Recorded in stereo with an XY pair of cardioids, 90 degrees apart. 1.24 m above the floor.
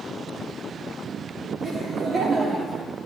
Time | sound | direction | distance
1.6 | laughter | 55° right | 3.5 m